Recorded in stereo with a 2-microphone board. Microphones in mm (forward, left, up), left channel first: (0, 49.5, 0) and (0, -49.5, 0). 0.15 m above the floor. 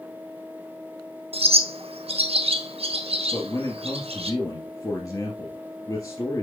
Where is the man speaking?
35° left (ahead or behind), 2 m.